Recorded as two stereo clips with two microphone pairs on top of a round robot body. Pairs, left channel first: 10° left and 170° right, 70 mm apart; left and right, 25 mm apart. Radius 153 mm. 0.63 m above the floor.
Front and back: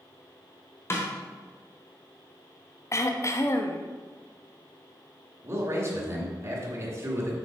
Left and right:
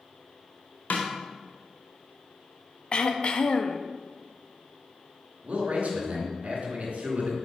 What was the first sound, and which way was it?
A snare drum, 70° left.